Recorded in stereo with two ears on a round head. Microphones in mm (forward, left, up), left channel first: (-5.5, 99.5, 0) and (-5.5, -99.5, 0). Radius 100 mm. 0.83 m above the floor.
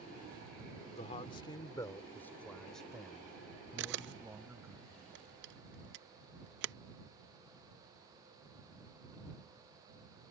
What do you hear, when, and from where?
0.9 s a man speaking: 30° left (ahead or behind); by 4.8 s 10° right (ahead or behind)
3.8 s a camera shutter: 55° right (ahead or behind)